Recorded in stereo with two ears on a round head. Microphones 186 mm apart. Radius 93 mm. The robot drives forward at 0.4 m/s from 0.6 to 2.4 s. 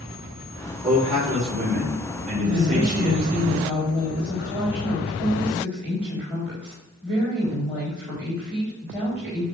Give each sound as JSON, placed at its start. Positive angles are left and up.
{"t": 0.8, "sound": "a man speaking", "side_deg": -35, "distance_m": 4.0}
{"t": 2.4, "sound": "a woman speaking", "side_deg": -10, "distance_m": 4.0}